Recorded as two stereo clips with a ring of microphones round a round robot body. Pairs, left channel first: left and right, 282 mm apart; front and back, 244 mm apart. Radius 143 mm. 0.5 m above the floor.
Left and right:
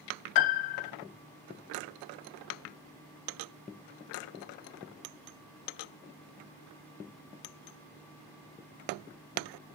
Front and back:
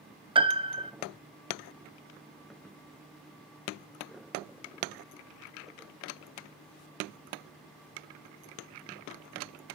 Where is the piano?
110° left, 0.9 m.